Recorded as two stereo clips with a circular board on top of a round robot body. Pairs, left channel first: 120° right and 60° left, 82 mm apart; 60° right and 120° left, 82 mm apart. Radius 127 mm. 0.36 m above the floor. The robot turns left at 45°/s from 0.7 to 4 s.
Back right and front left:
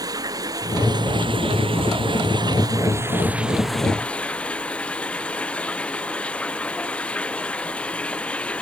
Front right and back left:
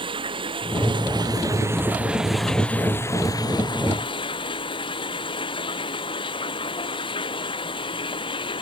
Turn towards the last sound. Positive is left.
turn(degrees=-45)